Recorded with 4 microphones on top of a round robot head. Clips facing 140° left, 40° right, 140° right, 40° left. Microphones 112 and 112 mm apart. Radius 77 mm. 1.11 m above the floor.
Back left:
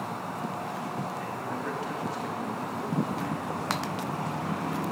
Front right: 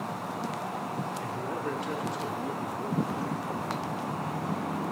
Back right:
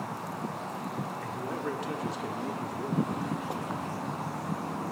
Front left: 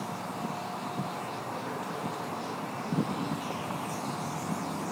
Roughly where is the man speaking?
Right.